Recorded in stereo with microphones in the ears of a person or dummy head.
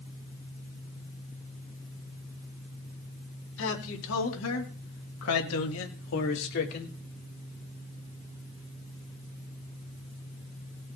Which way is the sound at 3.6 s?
75° left (ahead or behind).